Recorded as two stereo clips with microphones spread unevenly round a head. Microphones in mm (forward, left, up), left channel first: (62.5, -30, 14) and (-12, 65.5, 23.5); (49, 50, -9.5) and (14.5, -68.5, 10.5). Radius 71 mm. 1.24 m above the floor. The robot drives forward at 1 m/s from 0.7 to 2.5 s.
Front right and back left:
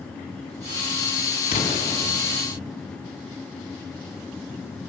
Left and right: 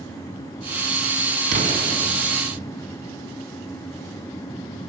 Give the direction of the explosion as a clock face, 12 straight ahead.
3 o'clock.